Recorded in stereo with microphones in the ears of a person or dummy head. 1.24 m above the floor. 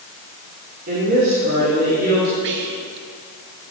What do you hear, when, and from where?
0.9 s a woman speaking: 50° right (ahead or behind), 2.5 m
2.4 s whispering: 60° right (ahead or behind), 1.1 m